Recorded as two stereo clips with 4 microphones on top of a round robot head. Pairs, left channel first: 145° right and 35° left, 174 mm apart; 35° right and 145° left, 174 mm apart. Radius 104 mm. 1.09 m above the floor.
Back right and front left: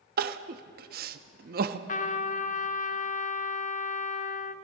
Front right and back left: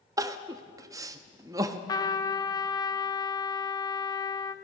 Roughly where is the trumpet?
Right.